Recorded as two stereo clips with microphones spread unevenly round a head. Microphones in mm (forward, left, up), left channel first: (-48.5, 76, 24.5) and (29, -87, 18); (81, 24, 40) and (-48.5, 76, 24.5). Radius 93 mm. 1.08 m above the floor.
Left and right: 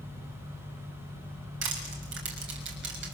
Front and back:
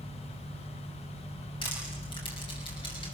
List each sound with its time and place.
1.6 s crushing: 85° right, 6 m